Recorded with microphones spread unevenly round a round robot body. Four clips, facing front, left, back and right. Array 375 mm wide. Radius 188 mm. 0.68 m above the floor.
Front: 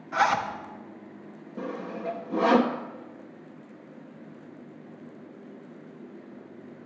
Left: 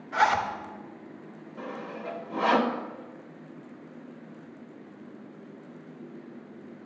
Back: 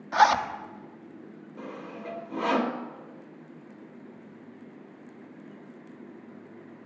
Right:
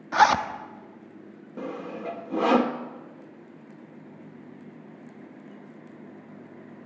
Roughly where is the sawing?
Ahead right.